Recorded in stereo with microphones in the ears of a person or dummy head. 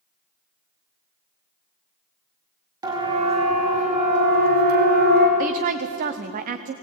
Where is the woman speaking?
45° right (ahead or behind), 0.7 m.